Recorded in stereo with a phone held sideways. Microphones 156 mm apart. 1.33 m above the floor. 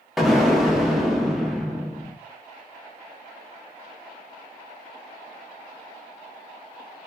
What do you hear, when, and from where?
0.2 s an explosion: centre (ahead or behind), 0.6 m